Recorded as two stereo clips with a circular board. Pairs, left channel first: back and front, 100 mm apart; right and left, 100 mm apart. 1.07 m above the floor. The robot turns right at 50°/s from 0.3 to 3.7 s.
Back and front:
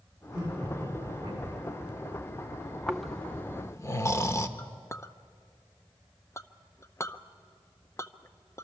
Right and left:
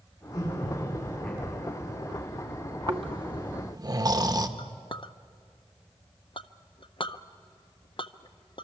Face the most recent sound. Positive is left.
turn(degrees=-120)